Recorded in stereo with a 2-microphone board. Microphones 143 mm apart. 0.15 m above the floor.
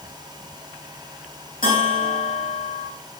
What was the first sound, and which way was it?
A bell, 80° left.